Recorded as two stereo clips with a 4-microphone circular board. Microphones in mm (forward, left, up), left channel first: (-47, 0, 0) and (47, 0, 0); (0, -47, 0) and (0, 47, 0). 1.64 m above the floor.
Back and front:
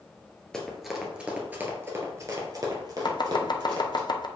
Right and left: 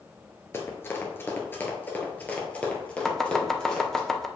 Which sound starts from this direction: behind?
Chopping, at 3.0 s.